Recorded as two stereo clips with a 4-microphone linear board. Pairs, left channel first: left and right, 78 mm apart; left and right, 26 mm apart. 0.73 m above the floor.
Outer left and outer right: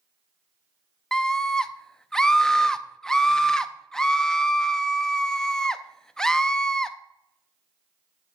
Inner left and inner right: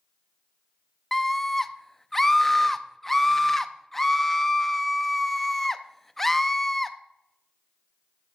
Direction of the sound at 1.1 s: 10° left (ahead or behind).